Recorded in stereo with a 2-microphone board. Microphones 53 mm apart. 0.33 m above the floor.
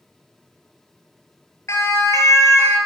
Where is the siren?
60° left (ahead or behind), 6.5 m; by 2.8 s 70° left (ahead or behind), 7.5 m.